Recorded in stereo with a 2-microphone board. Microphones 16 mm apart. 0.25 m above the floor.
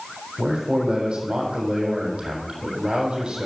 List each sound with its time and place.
0.4 s a man speaking: 80° right, 7.5 m